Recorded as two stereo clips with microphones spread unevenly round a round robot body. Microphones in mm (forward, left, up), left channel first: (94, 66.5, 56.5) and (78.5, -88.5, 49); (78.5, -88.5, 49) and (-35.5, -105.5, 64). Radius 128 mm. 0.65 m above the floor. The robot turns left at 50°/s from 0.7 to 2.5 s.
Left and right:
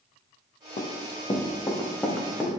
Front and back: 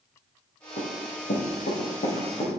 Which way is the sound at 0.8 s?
40° left.